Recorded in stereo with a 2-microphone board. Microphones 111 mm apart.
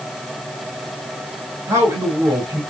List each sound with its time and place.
1.7 s a man speaking: 30° right (ahead or behind), 2 m